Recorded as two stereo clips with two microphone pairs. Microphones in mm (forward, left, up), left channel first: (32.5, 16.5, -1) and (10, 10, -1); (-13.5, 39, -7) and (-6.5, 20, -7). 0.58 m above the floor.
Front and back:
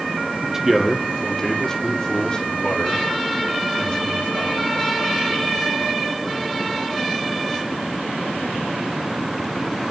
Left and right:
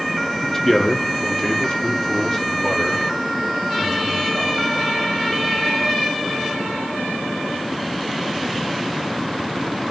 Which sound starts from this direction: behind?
A man speaking, at 0.4 s.